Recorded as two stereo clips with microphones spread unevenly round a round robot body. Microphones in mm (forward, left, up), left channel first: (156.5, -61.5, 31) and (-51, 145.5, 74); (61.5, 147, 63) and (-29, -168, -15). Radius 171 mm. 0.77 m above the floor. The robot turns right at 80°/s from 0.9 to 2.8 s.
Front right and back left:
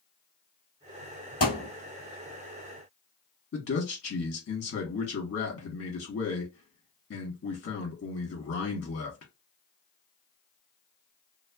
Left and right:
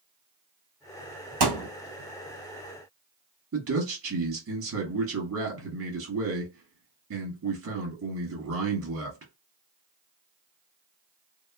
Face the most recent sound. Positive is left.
turn(degrees=-80)